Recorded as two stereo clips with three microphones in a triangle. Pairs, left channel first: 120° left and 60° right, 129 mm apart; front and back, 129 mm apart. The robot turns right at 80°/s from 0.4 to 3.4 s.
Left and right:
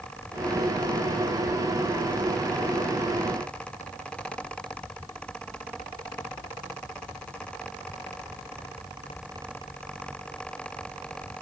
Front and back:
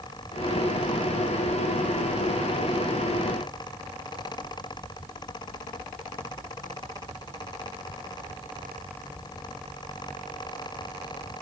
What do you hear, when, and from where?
Only background noise.